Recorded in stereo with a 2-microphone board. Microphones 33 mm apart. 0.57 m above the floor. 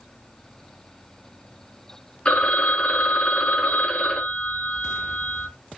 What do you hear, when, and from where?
2.2 s a phone ringing: 30° left (ahead or behind), 0.8 m